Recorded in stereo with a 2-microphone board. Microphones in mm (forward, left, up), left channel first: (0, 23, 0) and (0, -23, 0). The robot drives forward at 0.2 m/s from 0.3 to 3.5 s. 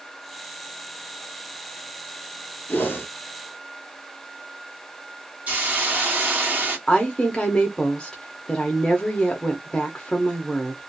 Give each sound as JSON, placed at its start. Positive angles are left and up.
{"t": 2.7, "sound": "a whoosh", "side_deg": 45, "distance_m": 0.9}
{"t": 5.5, "sound": "a hiss", "side_deg": -35, "distance_m": 1.4}
{"t": 6.9, "sound": "a woman speaking", "side_deg": 20, "distance_m": 0.7}